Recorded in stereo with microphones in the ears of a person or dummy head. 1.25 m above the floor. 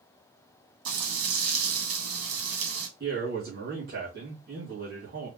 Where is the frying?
80° right, 2 m.